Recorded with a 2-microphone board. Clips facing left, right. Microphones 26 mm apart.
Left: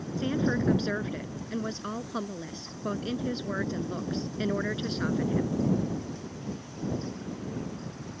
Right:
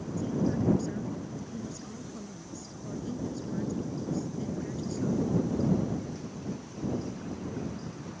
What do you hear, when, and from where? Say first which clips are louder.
0.2 s a woman speaking: left 2 dB; 65° left (ahead or behind)